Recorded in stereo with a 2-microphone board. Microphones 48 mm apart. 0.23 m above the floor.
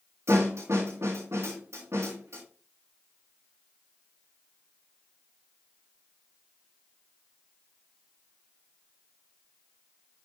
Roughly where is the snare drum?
Right.